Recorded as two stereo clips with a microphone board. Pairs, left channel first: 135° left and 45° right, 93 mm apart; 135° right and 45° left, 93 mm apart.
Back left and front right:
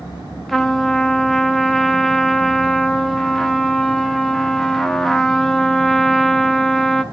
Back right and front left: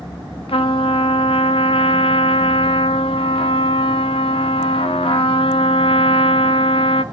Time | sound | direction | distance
0.5 | a trumpet | 140° right | 0.6 m